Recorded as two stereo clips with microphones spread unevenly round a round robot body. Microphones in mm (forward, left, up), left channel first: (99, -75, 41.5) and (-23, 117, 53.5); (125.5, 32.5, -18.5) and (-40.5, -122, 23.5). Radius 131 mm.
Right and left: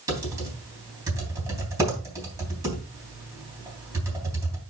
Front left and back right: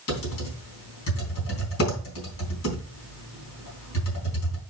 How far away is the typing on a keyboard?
About 3.5 m.